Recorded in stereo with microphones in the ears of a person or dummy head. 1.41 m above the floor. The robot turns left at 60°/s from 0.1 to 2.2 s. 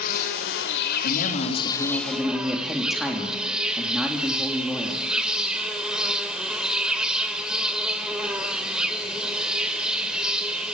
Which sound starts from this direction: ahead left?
A man speaking, at 1.0 s.